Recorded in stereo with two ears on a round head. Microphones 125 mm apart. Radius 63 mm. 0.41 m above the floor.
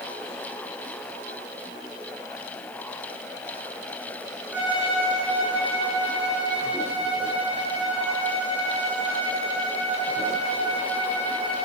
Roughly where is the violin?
Centre.